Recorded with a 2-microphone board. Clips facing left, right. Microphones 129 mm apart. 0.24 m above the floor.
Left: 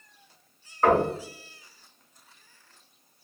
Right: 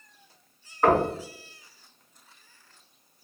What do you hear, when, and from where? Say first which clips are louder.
0.8 s knocking: even; 10° right (ahead or behind), 1.9 m